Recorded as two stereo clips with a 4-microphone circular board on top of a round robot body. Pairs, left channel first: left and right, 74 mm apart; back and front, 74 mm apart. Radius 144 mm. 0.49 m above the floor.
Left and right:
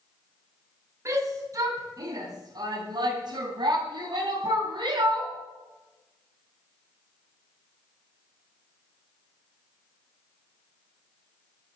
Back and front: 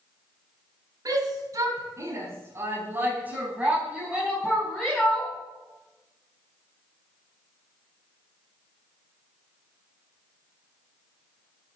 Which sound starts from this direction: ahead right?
A shout, at 1.1 s.